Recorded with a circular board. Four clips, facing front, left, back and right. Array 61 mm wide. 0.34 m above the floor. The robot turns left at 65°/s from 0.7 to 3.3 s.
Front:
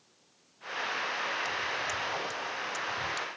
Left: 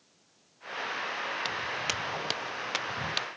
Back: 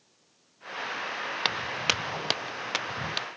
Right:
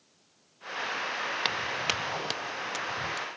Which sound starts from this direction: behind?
Footsteps, at 1.4 s.